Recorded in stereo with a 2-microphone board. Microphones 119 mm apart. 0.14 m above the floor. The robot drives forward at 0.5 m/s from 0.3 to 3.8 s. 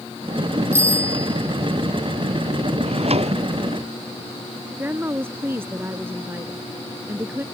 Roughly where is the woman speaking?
Centre.